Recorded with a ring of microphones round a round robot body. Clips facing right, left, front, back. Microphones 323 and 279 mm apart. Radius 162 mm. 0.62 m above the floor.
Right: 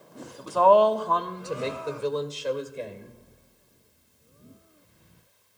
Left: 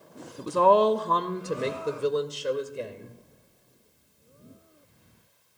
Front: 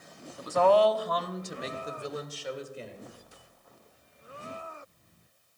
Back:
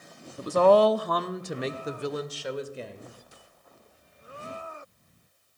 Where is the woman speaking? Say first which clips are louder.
Right 1 dB, back 4 dB; 135° left, 0.7 m; by 3.2 s 165° left, 2 m.